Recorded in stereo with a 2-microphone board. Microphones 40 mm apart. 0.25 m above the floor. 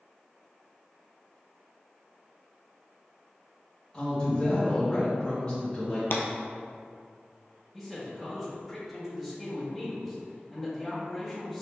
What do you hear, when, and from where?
3.9 s a woman speaking: 25° left (ahead or behind), 1.5 m
6.1 s breaking glass: 75° left (ahead or behind), 0.6 m
7.7 s a man speaking: centre (ahead or behind), 1.7 m